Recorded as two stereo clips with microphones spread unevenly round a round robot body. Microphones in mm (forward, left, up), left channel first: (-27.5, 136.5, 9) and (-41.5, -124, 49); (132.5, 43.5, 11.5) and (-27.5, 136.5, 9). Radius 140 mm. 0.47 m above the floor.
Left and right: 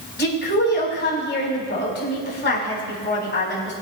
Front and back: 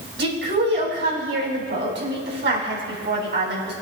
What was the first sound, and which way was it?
A woman speaking, 135° left.